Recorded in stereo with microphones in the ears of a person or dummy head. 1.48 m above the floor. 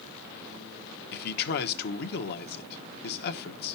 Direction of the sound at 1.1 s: 55° left (ahead or behind).